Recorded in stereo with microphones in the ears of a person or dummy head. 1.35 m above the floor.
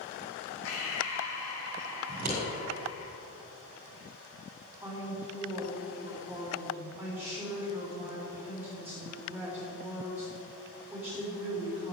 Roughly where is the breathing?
Left.